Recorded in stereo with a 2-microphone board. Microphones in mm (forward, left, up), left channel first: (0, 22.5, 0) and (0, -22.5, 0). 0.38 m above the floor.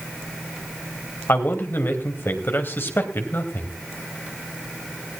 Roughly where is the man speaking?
Left.